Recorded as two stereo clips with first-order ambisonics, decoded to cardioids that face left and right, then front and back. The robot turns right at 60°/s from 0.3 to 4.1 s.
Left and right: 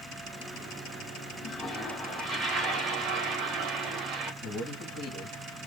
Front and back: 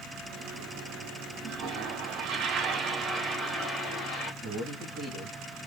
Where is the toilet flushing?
150° left, 1.4 m; by 4.3 s 45° right, 1.4 m.